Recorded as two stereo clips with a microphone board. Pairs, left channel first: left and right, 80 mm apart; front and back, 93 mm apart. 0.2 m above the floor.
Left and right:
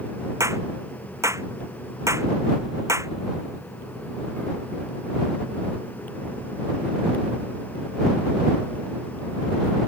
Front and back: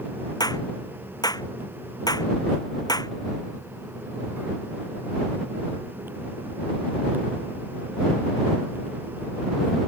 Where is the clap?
40° right.